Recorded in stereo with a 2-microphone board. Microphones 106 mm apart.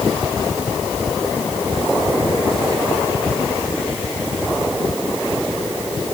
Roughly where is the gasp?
No gasp in this recording.